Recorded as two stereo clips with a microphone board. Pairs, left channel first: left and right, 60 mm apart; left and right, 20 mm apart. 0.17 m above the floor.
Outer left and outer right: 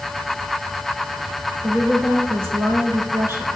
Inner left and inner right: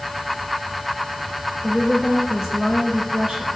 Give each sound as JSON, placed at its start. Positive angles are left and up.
{"t": 1.6, "sound": "a woman speaking", "side_deg": -45, "distance_m": 5.0}